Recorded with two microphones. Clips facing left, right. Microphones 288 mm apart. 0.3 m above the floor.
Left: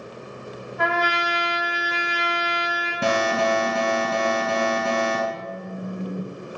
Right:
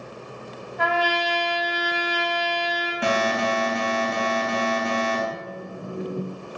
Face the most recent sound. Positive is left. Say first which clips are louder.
# left 1 dB
turn(degrees=-25)  # may be behind; listen again after turning